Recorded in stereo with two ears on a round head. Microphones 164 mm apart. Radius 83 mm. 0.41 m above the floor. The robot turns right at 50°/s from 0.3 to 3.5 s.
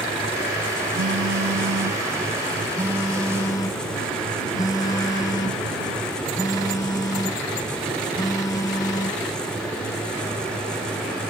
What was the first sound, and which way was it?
A phone buzzing, 105° right.